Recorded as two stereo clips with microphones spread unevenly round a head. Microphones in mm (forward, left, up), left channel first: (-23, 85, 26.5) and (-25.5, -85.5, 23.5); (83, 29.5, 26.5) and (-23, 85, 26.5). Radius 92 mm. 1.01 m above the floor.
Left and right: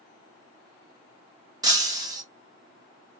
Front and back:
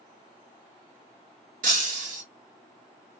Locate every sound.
1.6 s breaking glass: 160° right, 1.1 m